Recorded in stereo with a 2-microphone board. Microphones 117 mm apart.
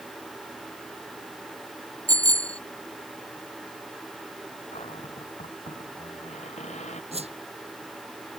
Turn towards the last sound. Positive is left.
turn(degrees=-60)  # may be behind; listen again after turning